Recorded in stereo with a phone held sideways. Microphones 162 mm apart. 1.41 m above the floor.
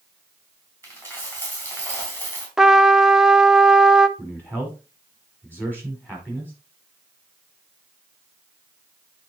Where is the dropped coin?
10° left (ahead or behind), 3.5 m.